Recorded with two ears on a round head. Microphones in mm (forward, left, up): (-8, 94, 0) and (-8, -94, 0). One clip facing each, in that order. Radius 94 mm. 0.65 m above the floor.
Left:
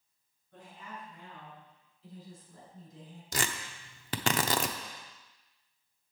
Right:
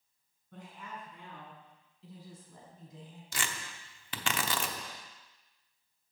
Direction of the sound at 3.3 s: 35° left (ahead or behind).